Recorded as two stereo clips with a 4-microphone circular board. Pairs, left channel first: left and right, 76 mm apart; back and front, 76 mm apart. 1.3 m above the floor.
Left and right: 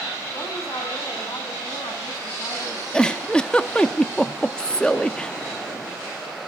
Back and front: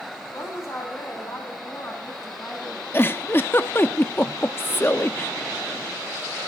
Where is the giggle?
155° left, 0.8 m.